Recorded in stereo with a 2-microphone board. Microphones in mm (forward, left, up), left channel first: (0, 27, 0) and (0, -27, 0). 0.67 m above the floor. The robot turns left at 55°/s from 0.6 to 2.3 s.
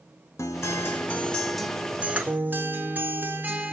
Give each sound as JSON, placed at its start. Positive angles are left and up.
{"t": 0.4, "sound": "a guitar", "azimuth_deg": 60, "distance_m": 0.6}